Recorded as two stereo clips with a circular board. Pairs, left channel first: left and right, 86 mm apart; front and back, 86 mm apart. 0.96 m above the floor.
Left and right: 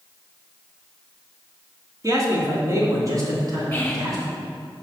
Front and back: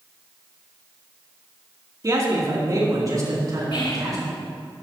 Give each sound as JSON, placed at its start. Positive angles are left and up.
{"t": 2.0, "sound": "a man speaking", "azimuth_deg": -135, "distance_m": 2.5}
{"t": 3.7, "sound": "whispering", "azimuth_deg": 20, "distance_m": 1.8}